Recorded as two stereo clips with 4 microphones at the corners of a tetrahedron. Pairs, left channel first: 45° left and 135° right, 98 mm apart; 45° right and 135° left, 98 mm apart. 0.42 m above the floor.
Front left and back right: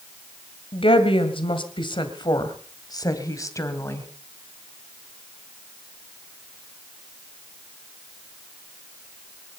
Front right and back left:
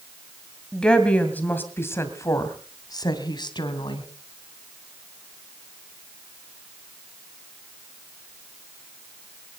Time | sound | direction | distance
0.7 | a woman speaking | 40° left | 2 m